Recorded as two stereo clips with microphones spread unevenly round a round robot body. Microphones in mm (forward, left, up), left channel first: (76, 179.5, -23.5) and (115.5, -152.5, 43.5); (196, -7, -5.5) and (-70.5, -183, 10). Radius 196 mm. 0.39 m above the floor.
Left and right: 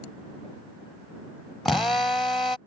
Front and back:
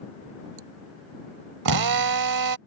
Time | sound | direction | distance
1.6 | a drill | straight behind | ?